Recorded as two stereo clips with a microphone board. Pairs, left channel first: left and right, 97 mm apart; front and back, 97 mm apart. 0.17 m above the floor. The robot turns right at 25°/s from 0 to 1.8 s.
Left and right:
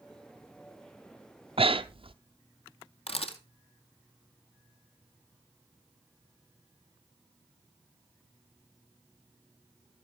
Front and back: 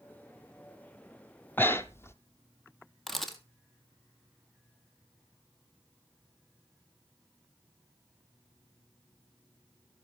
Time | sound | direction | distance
1.6 | breathing | 70° right | 0.9 m
3.1 | a camera shutter | 90° left | 1.8 m